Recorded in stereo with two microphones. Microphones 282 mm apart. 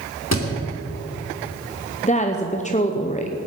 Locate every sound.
0.3 s a thud: 65° left (ahead or behind), 2.5 m
2.0 s a woman speaking: 25° left (ahead or behind), 0.8 m